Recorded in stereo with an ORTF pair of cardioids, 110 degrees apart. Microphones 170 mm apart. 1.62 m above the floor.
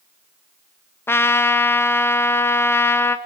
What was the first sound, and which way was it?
A trumpet, 15° left.